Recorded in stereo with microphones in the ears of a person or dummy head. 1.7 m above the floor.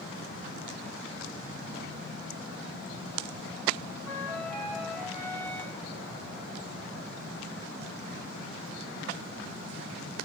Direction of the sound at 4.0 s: 10° left (ahead or behind).